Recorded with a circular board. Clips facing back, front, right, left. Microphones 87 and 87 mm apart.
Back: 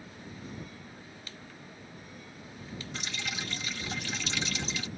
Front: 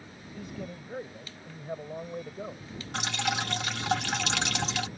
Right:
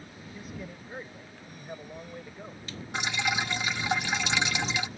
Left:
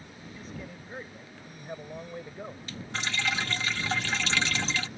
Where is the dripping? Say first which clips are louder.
Front 10 dB, right 2 dB; 15° right.